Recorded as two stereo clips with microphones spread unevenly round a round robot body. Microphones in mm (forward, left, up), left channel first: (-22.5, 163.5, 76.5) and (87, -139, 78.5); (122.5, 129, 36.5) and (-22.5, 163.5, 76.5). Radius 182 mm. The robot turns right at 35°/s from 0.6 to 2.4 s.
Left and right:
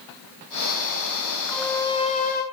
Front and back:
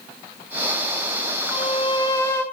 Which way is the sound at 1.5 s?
20° left.